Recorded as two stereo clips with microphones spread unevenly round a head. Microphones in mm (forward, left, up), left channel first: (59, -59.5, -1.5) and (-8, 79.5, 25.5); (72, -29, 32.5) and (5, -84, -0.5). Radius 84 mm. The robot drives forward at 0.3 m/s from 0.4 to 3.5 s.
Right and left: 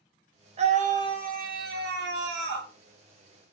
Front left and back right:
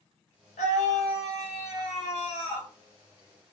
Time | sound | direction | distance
0.6 | a scream | 65° left | 0.9 m